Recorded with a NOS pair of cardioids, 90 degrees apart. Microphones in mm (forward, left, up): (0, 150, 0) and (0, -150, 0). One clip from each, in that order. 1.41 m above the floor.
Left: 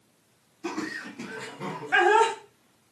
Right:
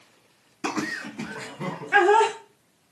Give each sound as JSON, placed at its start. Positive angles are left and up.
{"t": 0.6, "sound": "laughter", "azimuth_deg": -55, "distance_m": 0.6}